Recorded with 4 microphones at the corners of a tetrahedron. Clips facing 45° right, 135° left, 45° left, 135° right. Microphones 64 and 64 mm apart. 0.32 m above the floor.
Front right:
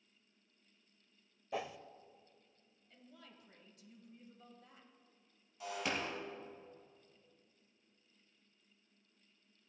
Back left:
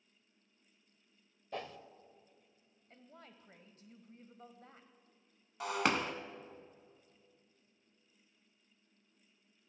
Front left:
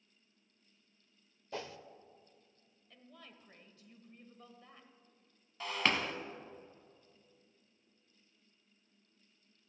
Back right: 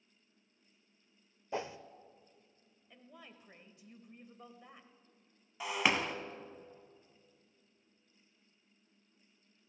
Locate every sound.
1.5 s a whoosh: 115° right, 0.5 m
2.9 s a woman speaking: 155° left, 1.4 m
5.6 s breaking glass: 145° left, 1.0 m